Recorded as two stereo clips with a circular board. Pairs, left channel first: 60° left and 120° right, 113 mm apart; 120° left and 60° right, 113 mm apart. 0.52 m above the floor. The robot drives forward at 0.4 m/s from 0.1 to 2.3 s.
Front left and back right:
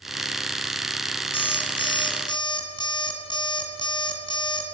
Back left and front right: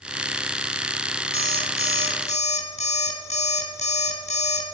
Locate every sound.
1.3 s an alarm clock: 100° left, 2.5 m; by 4.6 s 110° left, 2.5 m